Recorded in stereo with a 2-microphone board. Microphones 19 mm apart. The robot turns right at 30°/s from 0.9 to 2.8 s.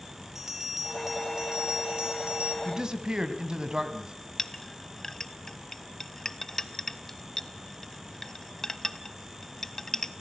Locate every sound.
0.3 s a bell: 160° right, 3.5 m; by 2.5 s 110° right, 3.5 m
2.6 s a man speaking: 35° right (ahead or behind), 2.0 m
4.4 s a clink: 20° left (ahead or behind), 0.7 m